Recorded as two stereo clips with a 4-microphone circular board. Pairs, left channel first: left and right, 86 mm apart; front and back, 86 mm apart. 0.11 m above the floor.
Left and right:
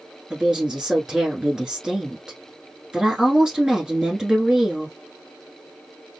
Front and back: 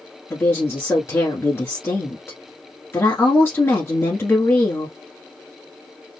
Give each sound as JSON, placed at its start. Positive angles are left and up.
{"t": 0.3, "sound": "a woman speaking", "azimuth_deg": -15, "distance_m": 1.2}